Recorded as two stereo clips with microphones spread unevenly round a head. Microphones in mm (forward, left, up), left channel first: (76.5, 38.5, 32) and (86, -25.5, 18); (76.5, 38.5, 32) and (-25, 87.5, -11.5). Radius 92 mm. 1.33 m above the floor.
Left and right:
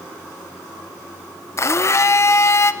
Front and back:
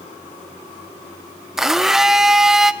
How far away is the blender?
About 0.6 m.